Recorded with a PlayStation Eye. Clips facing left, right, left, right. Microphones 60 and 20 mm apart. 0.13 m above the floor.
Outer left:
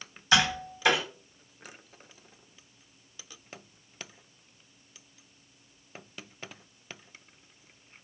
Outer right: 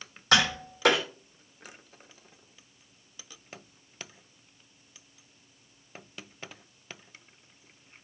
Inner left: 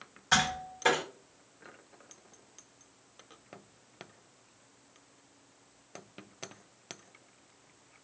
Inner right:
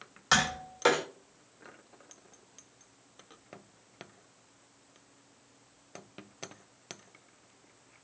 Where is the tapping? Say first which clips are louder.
Even, inner right 1 dB; 65° right (ahead or behind), 1.4 m.